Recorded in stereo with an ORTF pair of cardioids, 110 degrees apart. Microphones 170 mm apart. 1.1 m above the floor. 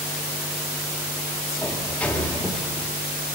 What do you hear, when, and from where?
1.6 s a sliding door: 10° left, 1.3 m